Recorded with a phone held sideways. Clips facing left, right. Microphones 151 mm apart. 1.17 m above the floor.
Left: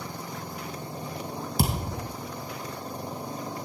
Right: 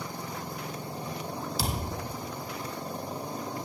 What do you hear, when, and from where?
1.6 s a thud: 55° left (ahead or behind), 2 m